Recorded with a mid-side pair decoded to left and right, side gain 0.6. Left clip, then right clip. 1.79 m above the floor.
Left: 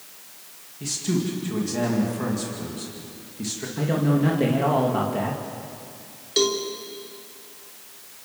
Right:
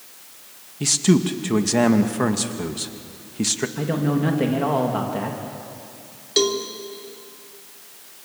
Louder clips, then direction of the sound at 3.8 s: Even; 10° right.